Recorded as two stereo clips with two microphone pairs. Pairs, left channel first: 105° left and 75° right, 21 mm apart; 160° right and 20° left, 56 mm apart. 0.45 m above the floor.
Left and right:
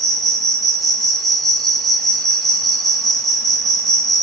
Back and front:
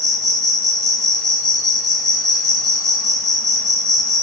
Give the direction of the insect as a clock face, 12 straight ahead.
7 o'clock.